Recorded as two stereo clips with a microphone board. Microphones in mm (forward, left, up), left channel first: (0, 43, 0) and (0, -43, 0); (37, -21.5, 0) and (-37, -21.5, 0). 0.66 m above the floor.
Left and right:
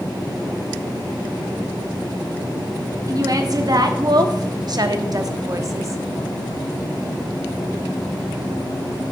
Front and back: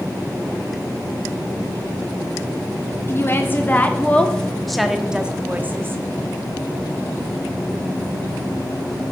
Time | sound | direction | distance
3.1 | a woman speaking | 50° right | 1.5 m